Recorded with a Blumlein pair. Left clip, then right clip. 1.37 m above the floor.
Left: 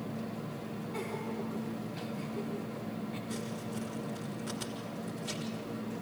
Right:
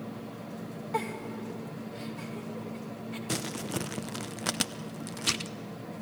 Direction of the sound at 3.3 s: 45° right.